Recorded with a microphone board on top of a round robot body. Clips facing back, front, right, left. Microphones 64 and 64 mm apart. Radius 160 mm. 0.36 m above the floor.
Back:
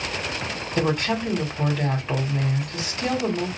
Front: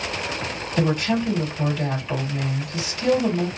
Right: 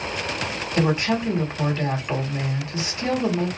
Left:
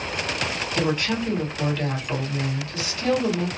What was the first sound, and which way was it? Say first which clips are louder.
A woman speaking: front 1 dB, right 3 dB; 150° right.